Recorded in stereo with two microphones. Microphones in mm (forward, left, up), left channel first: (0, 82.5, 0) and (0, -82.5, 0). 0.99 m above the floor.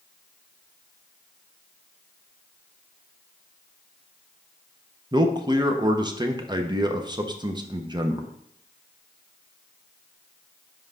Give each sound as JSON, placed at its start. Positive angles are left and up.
{"t": 5.1, "sound": "a man speaking", "side_deg": -25, "distance_m": 0.7}